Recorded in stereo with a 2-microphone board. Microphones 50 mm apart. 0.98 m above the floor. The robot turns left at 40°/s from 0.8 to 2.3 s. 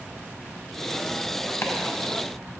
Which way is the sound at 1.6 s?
55° left (ahead or behind).